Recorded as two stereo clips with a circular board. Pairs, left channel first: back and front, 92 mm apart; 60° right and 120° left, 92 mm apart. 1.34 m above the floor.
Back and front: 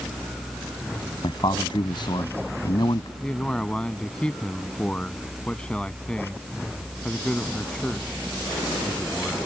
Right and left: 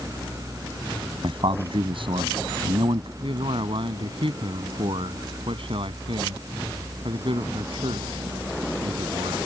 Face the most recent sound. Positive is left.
turn(degrees=100)